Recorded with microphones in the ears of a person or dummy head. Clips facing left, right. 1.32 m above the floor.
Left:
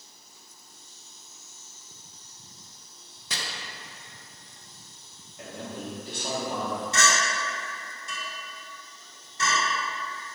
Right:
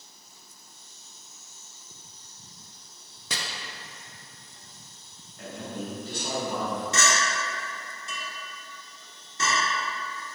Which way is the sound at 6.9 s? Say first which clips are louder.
Even; 70° right (ahead or behind).